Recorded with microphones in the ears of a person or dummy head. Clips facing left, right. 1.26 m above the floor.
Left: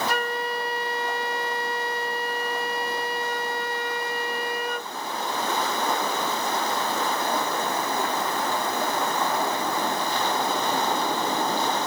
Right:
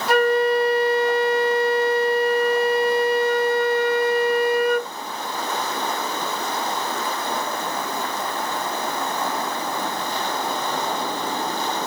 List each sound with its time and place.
0.1 s a flute: 60° right (ahead or behind)